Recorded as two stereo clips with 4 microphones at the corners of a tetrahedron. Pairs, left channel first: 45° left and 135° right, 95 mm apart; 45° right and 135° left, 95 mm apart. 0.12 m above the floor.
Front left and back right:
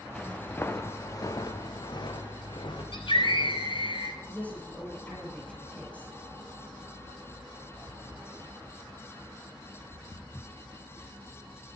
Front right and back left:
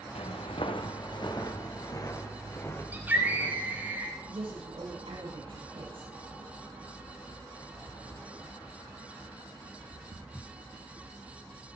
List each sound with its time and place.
0.1 s footsteps: 35° right, 1.1 m; by 3.9 s 20° left, 3.5 m
2.9 s a scream: 65° left, 5.5 m
4.3 s a woman speaking: 120° left, 7 m